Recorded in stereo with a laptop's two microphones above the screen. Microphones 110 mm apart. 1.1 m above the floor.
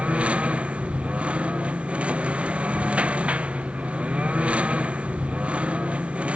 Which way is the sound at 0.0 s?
10° right (ahead or behind).